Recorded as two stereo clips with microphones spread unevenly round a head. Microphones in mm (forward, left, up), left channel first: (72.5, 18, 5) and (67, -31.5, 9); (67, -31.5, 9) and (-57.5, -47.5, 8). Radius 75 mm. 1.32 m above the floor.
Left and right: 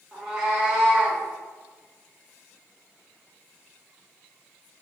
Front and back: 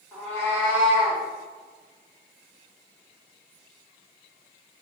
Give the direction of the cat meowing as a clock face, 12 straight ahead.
2 o'clock.